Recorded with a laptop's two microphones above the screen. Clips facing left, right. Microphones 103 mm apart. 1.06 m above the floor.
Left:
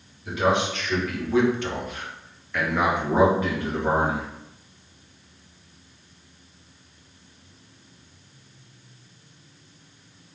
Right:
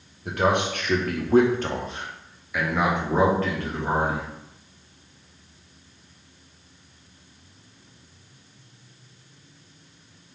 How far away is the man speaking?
About 1.1 m.